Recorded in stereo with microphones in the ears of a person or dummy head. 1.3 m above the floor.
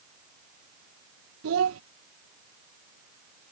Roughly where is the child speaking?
Right.